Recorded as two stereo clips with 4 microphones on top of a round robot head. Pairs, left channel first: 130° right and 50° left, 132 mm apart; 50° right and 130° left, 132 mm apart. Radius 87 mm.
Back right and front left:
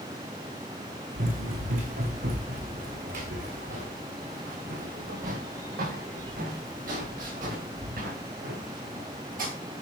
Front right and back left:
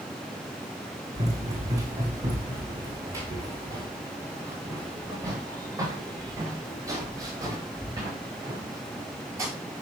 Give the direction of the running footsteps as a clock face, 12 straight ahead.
10 o'clock.